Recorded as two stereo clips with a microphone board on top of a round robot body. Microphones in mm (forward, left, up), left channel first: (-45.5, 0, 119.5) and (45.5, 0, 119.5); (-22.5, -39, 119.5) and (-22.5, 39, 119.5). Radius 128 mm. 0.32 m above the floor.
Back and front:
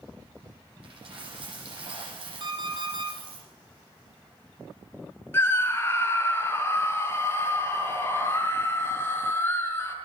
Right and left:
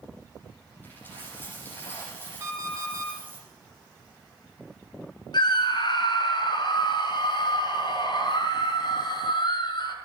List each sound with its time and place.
0.8 s a dropped coin: 25° right, 8.5 m
2.4 s an alarm clock: 25° left, 7 m
5.3 s a scream: 115° right, 5.5 m